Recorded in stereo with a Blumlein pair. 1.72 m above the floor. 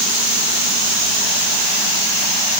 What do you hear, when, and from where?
Only background noise.